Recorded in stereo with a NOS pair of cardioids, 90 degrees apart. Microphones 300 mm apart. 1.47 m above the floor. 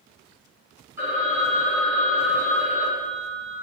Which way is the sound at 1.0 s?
10° right.